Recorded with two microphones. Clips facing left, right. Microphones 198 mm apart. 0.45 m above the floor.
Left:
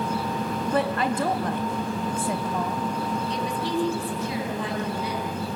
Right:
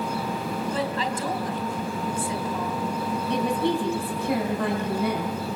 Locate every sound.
0.7 s a woman speaking: 60° left (ahead or behind), 2.5 m
3.3 s a woman speaking: 60° right (ahead or behind), 4 m